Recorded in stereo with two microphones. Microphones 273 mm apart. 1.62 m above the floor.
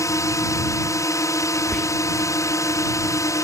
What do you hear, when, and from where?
0.0 s a drone: 10° left (ahead or behind)
1.7 s whispering: centre (ahead or behind)